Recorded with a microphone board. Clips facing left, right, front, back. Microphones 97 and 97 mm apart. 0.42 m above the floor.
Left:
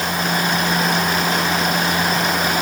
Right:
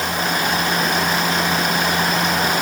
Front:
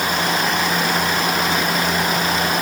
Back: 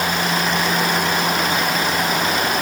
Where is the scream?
I don't hear a scream.